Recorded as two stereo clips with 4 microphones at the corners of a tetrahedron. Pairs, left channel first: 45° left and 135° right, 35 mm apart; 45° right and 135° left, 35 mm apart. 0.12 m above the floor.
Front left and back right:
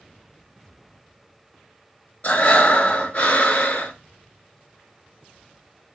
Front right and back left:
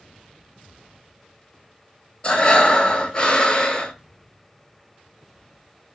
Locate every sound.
2.2 s breathing: 10° left, 0.5 m